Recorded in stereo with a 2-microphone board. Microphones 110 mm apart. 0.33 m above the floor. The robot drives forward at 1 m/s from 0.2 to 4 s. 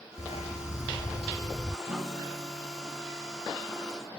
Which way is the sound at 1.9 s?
85° right.